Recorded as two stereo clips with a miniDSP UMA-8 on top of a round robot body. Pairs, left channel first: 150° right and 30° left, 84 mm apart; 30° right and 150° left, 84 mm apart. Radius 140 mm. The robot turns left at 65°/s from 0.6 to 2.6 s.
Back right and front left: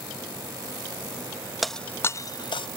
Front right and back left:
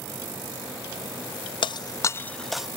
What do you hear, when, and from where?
1.6 s breaking glass: 60° right; by 2.7 s 120° right